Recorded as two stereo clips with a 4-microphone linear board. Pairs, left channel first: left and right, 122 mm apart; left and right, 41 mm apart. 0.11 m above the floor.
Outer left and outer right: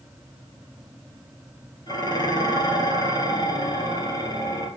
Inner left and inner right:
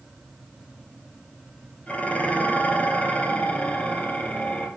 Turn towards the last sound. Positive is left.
turn(degrees=35)  # may be behind; listen again after turning